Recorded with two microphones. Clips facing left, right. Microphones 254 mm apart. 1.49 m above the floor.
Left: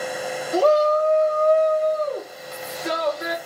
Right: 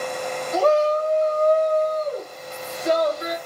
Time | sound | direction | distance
0.5 | a shout | 35° left (ahead or behind) | 1.1 m